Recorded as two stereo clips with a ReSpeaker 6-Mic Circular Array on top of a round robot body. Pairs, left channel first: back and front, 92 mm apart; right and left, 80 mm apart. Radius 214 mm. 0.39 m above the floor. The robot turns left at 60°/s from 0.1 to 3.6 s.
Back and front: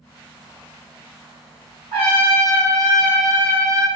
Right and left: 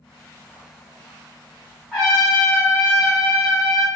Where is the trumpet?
Straight ahead, 1.5 m; by 3.9 s 100° right, 1.5 m.